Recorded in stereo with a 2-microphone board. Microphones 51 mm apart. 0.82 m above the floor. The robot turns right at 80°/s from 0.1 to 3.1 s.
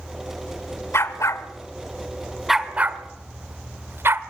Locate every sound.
0.9 s a dog barking: 60° left (ahead or behind), 1.3 m; by 4.2 s 50° right (ahead or behind), 1.3 m